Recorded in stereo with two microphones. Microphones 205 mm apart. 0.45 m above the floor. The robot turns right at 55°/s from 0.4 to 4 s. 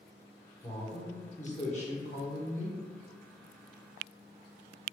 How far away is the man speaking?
About 1.1 m.